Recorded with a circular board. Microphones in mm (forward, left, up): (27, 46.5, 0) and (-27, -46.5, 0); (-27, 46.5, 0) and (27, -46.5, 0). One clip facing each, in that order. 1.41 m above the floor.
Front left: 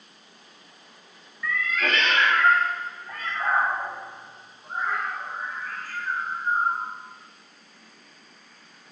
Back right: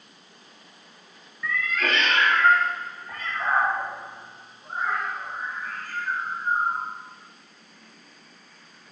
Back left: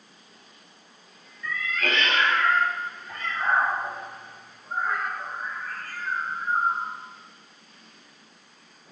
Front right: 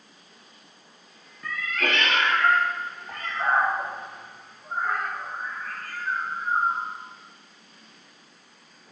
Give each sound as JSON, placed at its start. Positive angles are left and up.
{"t": 1.4, "sound": "a cat meowing", "azimuth_deg": -35, "distance_m": 1.3}